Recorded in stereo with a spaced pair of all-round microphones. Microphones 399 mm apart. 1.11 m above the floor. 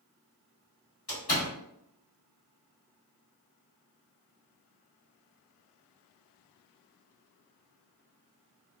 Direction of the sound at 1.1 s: 75° left (ahead or behind).